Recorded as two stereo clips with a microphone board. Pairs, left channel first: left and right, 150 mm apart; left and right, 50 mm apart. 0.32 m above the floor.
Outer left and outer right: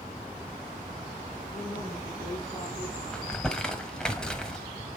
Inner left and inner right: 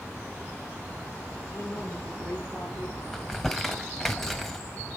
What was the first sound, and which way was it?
A woman speaking, 80° left.